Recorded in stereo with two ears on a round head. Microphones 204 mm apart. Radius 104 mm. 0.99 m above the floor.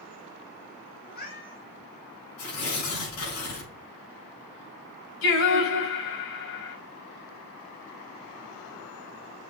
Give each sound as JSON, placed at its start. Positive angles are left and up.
{"t": 1.0, "sound": "a cat meowing", "side_deg": 45, "distance_m": 4.5}
{"t": 2.4, "sound": "tearing paper", "side_deg": 80, "distance_m": 6.5}
{"t": 5.2, "sound": "singing", "side_deg": 70, "distance_m": 7.0}